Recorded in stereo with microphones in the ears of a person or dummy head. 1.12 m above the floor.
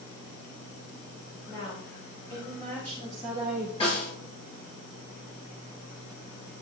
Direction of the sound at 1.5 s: 20° left (ahead or behind).